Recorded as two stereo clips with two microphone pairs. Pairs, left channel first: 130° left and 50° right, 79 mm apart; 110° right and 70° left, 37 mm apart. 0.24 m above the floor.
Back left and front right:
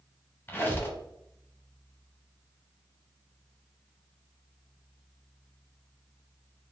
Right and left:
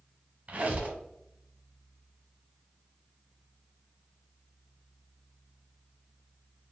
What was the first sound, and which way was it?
A squeak, 80° left.